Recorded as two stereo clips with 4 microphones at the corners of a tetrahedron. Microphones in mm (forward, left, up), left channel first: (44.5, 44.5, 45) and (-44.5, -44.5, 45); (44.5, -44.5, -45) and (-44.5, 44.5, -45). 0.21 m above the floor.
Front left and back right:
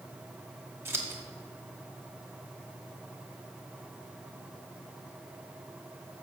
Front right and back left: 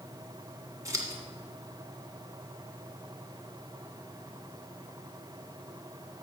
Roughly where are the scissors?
Behind.